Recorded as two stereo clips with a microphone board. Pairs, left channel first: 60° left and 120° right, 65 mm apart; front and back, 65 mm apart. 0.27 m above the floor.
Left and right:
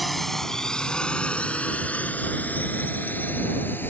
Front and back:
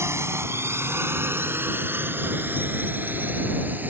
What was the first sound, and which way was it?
A drone, 150° left.